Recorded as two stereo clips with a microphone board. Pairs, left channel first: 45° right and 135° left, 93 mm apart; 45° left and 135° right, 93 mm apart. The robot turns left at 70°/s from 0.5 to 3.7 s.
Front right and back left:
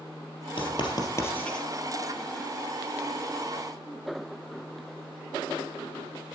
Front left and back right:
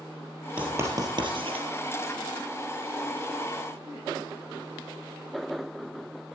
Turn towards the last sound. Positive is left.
turn(degrees=80)